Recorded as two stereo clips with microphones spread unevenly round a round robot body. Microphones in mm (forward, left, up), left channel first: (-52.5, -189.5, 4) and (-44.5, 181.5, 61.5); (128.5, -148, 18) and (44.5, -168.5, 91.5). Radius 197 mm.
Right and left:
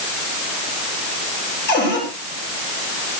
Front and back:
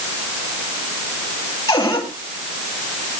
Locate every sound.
1.7 s a cupboard door: 25° right, 8.5 m